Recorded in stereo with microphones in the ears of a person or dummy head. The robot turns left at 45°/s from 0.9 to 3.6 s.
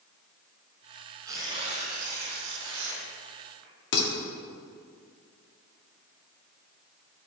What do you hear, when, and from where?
1.2 s tearing paper: 20° right, 3 m; by 3.7 s 125° right, 3 m
3.9 s dishes clattering: 60° left (ahead or behind), 1.9 m